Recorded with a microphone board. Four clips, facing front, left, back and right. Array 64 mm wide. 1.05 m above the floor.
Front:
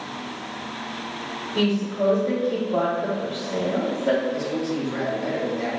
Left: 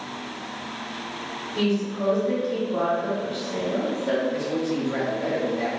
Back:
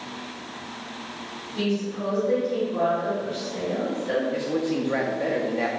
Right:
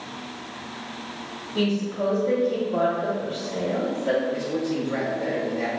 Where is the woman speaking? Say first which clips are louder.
Even, front 4 dB; 30° right, 2 m.